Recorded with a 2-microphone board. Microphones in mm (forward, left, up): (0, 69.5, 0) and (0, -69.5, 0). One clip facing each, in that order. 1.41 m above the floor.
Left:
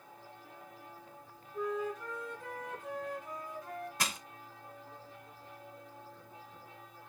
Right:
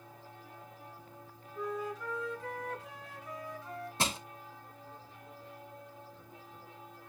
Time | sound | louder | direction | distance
1.5 | a flute | left 2 dB | 45° left (ahead or behind) | 3 m
4.0 | crushing | right 7 dB | 30° right (ahead or behind) | 0.6 m